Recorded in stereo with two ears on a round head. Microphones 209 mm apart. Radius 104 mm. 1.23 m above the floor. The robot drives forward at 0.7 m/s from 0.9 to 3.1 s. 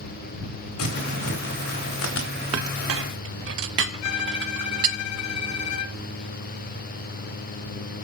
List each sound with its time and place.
0.8 s crumpling: 75° left (ahead or behind), 3 m; by 2.3 s 60° left (ahead or behind), 3.5 m
2.5 s a clink: 75° right (ahead or behind), 0.6 m; by 5.0 s 55° right (ahead or behind), 0.7 m
4.0 s a violin: 70° left (ahead or behind), 0.8 m